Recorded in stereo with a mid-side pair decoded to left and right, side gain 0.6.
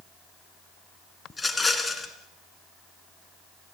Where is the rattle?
15° left, 3 m.